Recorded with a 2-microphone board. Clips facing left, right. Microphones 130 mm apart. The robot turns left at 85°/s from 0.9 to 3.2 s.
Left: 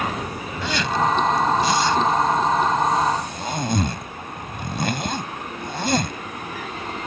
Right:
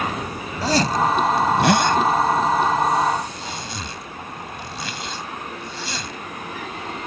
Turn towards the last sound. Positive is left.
turn(degrees=55)  # may be behind; listen again after turning